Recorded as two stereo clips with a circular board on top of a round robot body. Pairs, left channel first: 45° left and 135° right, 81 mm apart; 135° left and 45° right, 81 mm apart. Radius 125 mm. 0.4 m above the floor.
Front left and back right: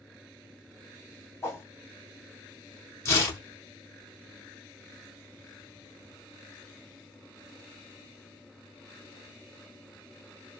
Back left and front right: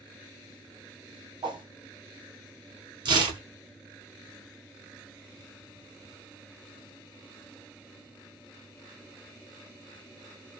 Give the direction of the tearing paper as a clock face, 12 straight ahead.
12 o'clock.